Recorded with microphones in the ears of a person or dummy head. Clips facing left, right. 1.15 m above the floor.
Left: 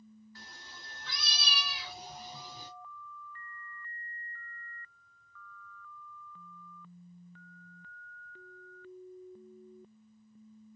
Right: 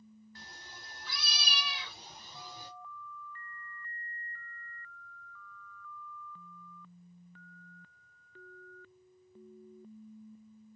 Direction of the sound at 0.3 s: 30° right (ahead or behind).